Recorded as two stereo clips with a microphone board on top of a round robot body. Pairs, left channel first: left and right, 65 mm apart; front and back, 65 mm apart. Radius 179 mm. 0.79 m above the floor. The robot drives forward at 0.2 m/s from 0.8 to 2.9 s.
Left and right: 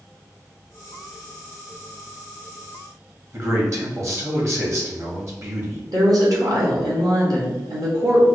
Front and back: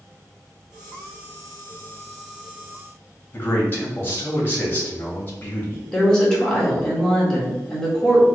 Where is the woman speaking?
75° right, 1.6 m.